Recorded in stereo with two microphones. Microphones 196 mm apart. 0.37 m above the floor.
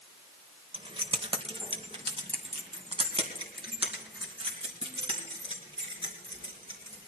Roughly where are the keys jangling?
Right.